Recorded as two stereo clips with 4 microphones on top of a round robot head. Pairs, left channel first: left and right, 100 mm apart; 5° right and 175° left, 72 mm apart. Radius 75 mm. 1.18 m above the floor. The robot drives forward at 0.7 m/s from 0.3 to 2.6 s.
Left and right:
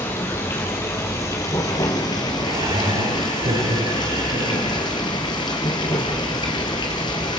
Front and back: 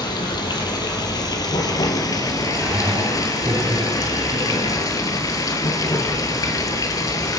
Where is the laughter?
115° right, 9.5 m.